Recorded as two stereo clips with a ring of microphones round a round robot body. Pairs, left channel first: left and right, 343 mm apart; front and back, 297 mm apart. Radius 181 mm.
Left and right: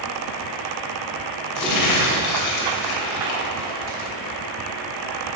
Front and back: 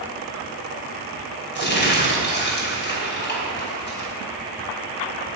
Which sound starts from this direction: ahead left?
Crumpling, at 1.6 s.